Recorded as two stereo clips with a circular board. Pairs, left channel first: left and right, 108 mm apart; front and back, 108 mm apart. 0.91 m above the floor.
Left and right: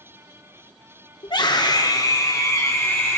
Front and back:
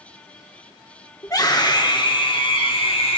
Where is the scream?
55° left, 2.5 m; by 3.2 s 5° left, 2 m.